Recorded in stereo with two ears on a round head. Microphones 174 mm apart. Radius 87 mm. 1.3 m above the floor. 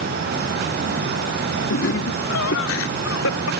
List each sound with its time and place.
1.7 s laughter: 75° left (ahead or behind); by 3.5 s 85° left